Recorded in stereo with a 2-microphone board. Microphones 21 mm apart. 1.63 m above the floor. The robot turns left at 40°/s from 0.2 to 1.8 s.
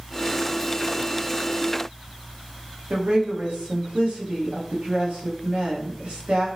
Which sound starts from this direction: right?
A woman speaking, at 2.9 s.